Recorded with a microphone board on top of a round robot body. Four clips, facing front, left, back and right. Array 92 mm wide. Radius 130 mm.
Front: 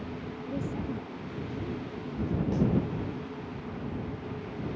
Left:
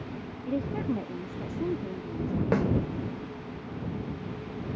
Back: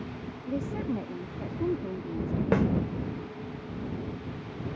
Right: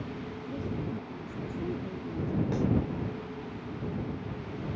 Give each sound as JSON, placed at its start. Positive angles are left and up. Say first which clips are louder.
{"t": 0.5, "sound": "a woman speaking", "louder": "left 7 dB, back 4 dB", "azimuth_deg": 110}
{"t": 2.5, "sound": "a snare drum", "louder": "left 7 dB, back 4 dB", "azimuth_deg": 140}